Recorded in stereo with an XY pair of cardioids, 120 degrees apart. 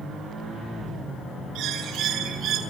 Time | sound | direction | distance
1.6 | a bird | 70° right | 2.5 m